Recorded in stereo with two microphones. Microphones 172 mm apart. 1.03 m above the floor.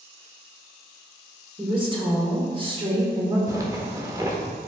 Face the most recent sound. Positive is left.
turn(degrees=-20)  # may be behind; listen again after turning